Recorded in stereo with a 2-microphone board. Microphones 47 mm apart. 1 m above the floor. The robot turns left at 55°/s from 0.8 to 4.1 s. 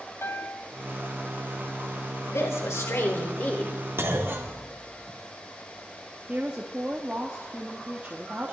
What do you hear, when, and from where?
0.2 s a piano: 60° left (ahead or behind), 1.4 m
2.3 s a woman speaking: 100° left, 3.5 m; by 3.8 s 20° left, 3.5 m
4.0 s a clunk: 55° right (ahead or behind), 2 m; by 5.2 s 50° right (ahead or behind), 2 m
6.3 s a woman speaking: 30° right (ahead or behind), 1.5 m